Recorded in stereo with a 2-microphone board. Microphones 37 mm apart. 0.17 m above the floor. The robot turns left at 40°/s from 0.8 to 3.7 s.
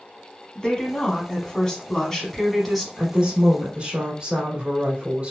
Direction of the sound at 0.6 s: 25° left (ahead or behind).